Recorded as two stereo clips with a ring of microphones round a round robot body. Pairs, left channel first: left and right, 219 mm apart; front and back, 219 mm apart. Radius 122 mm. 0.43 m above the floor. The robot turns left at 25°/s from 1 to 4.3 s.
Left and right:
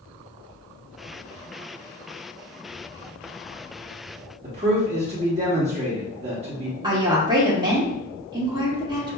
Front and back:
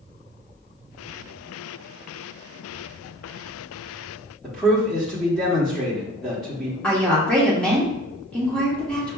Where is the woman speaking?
75° right, 1.0 m.